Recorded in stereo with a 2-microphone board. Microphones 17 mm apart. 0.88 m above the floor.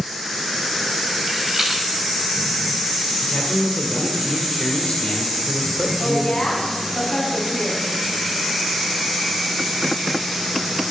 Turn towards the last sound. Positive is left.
turn(degrees=80)